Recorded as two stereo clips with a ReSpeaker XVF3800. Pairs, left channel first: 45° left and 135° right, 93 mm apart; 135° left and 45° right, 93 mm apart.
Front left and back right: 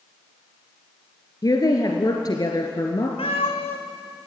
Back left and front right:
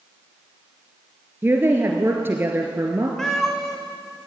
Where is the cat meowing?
50° left, 2.5 m.